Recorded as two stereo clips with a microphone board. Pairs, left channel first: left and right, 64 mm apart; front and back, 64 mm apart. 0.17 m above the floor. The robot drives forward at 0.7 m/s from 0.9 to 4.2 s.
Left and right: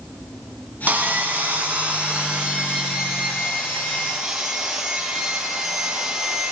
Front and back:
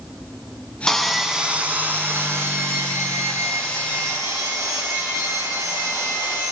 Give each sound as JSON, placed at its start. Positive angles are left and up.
{"t": 0.9, "sound": "sawing", "azimuth_deg": -75, "distance_m": 0.8}